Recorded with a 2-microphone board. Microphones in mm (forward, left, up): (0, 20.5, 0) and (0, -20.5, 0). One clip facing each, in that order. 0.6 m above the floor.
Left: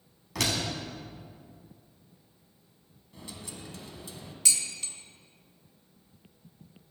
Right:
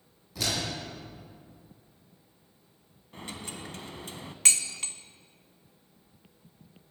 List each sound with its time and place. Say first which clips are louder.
0.3 s a door slam: left 2 dB; 85° left, 4 m
3.1 s a dropped coin: right 4 dB; 50° right (ahead or behind), 0.8 m
4.5 s dishes clattering: right 3 dB; 55° right (ahead or behind), 0.7 m